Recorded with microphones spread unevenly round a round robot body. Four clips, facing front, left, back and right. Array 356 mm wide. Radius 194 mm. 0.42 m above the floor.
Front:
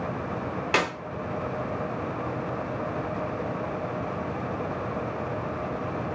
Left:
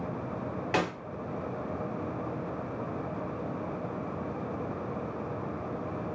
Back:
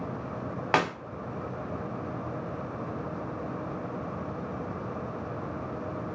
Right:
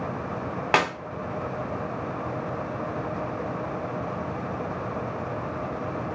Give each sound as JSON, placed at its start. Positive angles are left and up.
{"t": 0.7, "sound": "a clap", "azimuth_deg": -95, "distance_m": 1.3}